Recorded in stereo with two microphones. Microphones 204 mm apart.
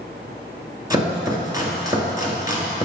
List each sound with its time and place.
0.9 s chopping: 20° right (ahead or behind), 2.5 m